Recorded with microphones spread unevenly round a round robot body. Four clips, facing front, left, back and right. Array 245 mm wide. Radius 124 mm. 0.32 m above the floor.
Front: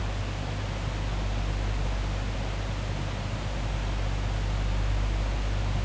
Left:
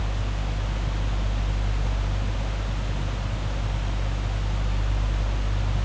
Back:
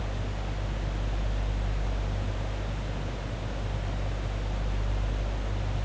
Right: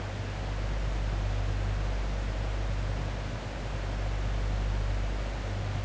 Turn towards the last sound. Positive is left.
No sound to turn to.